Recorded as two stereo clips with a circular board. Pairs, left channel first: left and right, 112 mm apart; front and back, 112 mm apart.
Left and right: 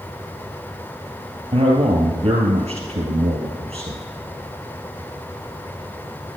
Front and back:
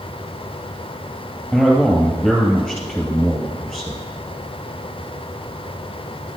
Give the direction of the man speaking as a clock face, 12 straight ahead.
3 o'clock.